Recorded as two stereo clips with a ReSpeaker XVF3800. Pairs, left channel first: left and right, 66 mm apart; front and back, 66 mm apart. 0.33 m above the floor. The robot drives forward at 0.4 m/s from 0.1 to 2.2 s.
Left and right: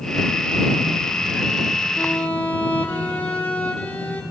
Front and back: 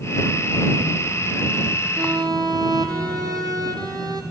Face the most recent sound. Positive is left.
turn(degrees=160)